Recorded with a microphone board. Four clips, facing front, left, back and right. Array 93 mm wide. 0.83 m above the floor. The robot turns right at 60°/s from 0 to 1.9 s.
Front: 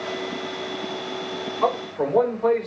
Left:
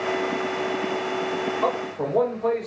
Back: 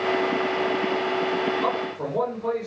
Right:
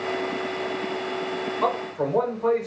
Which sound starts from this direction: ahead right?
A man speaking, at 1.6 s.